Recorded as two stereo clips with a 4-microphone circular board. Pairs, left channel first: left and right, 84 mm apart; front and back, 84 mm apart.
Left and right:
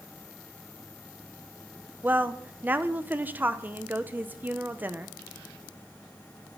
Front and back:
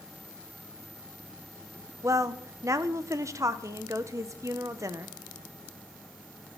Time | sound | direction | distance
2.0 | a woman speaking | 150° right | 0.7 m